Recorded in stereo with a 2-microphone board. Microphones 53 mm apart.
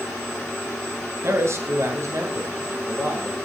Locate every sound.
1.2 s a man speaking: 55° right (ahead or behind), 1.9 m; by 3.4 s 70° right (ahead or behind), 3 m